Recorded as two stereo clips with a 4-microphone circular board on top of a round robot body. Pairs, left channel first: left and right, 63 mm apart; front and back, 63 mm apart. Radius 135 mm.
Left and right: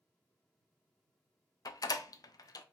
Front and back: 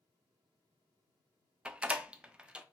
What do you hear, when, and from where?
1.6 s a door slam: 105° left, 0.5 m